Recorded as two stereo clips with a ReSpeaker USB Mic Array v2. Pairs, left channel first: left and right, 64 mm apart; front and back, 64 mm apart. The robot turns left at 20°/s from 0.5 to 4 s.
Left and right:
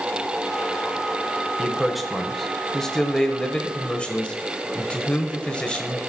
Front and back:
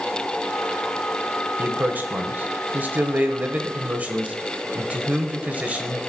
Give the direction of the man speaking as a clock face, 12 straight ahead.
6 o'clock.